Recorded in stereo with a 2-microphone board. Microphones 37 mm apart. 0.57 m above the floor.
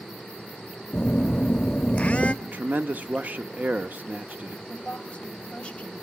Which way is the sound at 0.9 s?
40° left (ahead or behind).